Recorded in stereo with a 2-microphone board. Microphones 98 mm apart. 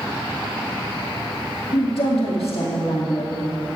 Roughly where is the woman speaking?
Left.